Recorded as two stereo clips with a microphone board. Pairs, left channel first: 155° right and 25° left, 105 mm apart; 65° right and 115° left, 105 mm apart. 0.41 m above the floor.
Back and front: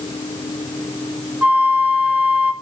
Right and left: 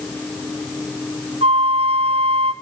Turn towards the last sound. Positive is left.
turn(degrees=100)